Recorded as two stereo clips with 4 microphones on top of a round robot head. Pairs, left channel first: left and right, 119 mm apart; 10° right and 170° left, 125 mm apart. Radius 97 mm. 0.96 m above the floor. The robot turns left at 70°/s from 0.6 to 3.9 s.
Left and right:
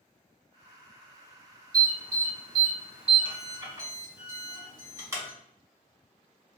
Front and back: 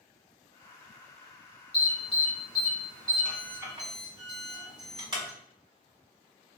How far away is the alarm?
About 1.8 m.